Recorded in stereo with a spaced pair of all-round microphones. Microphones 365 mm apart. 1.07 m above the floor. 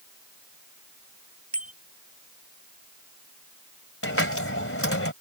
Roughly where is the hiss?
Left.